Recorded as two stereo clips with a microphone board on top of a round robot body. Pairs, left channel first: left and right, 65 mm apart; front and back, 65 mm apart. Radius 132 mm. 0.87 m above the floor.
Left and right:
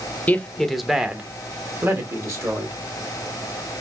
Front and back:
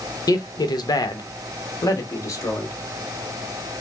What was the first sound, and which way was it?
A man speaking, 25° left.